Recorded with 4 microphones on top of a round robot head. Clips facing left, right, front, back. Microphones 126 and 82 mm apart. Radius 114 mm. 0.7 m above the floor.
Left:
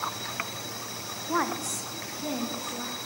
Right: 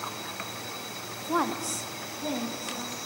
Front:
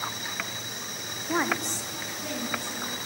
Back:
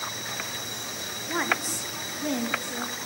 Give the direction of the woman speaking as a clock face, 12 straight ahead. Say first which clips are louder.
Right 1 dB, front 1 dB; 1 o'clock.